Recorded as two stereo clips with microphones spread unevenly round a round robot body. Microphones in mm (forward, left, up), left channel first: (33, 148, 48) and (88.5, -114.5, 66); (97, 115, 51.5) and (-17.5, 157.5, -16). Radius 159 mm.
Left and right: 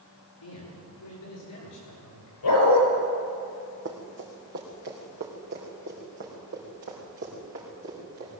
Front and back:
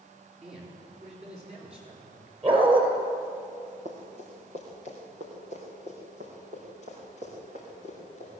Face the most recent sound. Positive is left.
turn(degrees=-140)